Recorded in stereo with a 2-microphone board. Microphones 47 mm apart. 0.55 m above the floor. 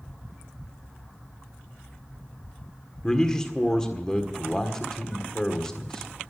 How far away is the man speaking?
About 1.6 m.